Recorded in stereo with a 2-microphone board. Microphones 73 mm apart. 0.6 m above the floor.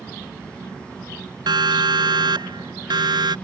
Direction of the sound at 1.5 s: 85° right.